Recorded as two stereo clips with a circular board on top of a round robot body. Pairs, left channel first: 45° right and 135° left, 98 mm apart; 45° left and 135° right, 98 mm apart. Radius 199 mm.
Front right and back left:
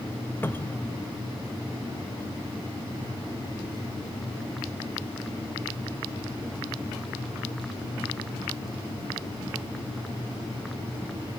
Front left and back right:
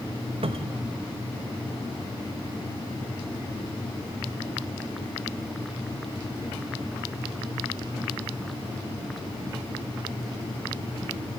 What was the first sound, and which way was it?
A cupboard door, 115° right.